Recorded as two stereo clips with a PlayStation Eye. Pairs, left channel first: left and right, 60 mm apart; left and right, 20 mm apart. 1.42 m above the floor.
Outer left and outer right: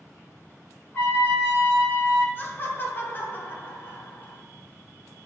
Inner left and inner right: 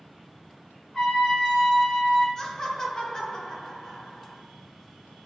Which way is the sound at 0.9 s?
30° left (ahead or behind).